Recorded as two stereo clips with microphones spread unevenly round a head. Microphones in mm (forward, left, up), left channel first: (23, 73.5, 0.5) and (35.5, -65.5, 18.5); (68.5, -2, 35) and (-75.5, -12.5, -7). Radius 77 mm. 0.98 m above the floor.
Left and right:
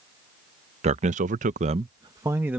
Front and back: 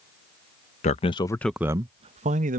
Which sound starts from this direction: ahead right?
A man speaking, at 0.8 s.